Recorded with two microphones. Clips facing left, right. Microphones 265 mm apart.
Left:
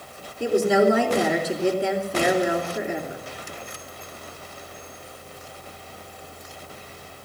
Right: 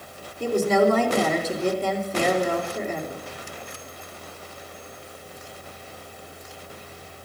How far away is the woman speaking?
About 3 m.